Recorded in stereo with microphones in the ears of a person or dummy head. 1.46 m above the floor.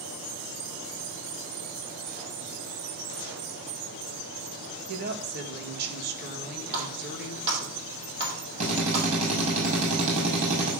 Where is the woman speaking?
55° right (ahead or behind), 1.8 m.